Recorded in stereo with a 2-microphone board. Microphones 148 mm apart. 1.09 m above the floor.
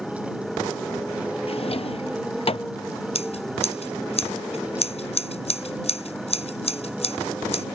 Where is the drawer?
45° left (ahead or behind).